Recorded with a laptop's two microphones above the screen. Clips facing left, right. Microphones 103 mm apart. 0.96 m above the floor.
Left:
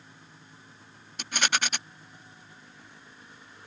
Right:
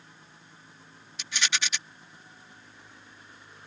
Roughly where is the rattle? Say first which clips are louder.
Left 4 dB; left.